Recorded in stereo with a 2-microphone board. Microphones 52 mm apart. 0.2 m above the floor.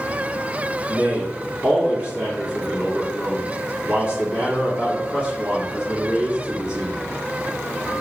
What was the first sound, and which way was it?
A man speaking, 25° right (ahead or behind).